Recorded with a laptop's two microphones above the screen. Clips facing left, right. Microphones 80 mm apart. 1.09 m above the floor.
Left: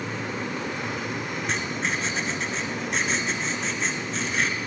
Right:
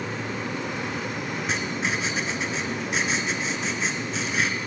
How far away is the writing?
About 3.5 m.